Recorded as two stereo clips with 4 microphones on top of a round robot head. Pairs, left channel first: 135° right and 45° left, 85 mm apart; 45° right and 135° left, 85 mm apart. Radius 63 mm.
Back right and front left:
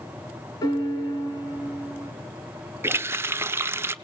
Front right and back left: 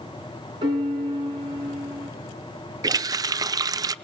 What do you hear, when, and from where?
0.6 s a piano: 175° left, 3 m
2.8 s a running tap: 100° left, 0.6 m